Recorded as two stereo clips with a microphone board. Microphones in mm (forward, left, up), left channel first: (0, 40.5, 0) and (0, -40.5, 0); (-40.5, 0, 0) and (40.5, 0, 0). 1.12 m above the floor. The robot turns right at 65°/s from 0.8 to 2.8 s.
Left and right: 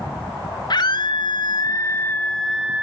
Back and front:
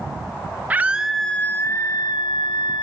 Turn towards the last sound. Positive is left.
turn(degrees=-160)